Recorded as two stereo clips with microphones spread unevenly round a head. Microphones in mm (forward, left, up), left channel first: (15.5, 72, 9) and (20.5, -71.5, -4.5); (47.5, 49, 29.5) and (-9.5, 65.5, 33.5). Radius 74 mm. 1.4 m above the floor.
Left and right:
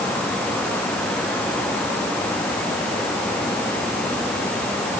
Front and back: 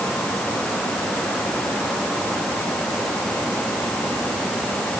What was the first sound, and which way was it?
Only background noise.